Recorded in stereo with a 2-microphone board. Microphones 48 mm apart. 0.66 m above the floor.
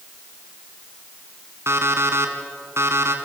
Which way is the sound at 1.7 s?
60° right (ahead or behind).